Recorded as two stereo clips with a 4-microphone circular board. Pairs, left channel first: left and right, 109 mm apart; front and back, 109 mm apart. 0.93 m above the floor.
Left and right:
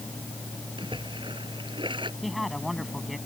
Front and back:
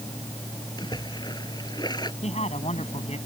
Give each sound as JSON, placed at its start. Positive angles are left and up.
{"t": 0.8, "sound": "a splash", "azimuth_deg": -50}
{"t": 2.2, "sound": "a man speaking", "azimuth_deg": 0}